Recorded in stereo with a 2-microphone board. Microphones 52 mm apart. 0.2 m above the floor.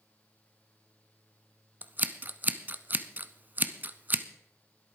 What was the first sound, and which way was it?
Scissors, 35° right (ahead or behind).